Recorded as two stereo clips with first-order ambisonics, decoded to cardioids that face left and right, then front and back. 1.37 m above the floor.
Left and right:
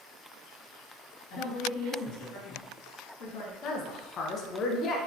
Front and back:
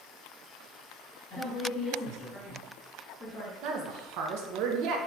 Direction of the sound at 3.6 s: 150° left.